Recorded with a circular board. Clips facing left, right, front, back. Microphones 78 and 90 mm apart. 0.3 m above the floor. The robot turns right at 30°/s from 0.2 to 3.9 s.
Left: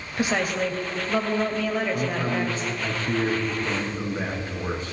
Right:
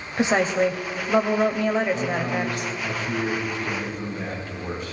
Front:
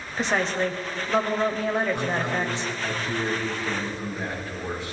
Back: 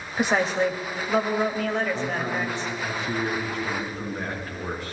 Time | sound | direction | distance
0.2 | a woman speaking | 115° right | 1.0 m
1.9 | a man speaking | 80° left | 4.5 m